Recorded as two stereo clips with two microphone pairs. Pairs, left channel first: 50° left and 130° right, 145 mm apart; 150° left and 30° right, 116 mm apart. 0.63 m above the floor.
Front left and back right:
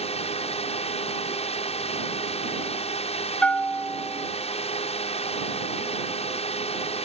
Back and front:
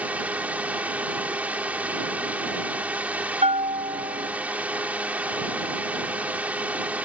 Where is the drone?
45° left.